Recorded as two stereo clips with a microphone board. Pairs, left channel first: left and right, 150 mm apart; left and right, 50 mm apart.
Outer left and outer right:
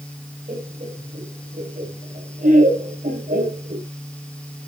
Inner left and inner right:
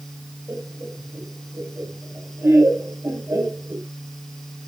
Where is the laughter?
55° right (ahead or behind), 7.5 m; by 3.9 s 65° right (ahead or behind), 6.5 m.